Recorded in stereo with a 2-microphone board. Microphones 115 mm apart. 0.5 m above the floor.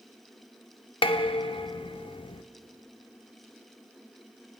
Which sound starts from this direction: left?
Dishes clattering, at 1.0 s.